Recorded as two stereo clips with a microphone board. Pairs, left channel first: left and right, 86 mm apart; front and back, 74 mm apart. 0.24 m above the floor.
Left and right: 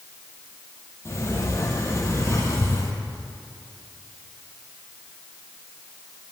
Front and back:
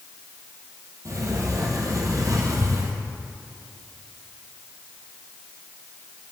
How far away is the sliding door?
About 1.8 m.